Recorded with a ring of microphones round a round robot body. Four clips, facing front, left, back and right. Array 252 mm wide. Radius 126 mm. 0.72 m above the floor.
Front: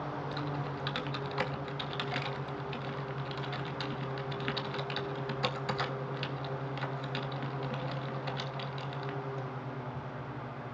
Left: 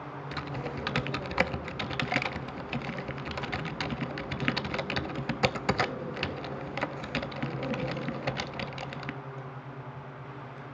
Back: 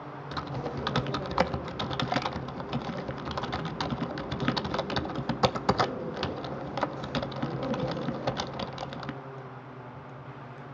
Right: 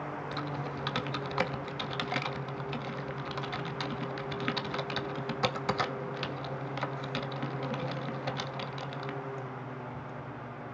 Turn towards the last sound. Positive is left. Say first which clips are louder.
# even, back 2 dB
turn(degrees=155)